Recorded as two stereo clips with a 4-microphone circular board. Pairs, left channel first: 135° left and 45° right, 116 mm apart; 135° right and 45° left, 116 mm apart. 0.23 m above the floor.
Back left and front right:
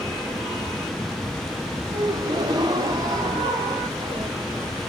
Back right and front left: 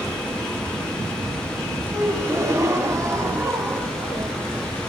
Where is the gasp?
10° right, 1.7 m.